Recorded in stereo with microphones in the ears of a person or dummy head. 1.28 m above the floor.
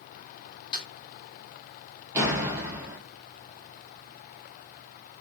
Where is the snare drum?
30° left (ahead or behind), 1.9 m.